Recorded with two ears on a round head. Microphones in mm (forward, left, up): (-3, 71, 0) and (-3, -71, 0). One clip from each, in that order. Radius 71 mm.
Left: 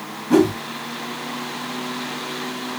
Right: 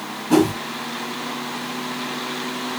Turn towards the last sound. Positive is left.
turn(degrees=-40)  # may be behind; listen again after turning